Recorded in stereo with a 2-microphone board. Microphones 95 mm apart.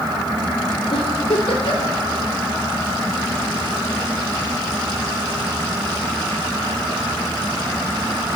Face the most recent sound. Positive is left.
turn(degrees=75)  # may be behind; listen again after turning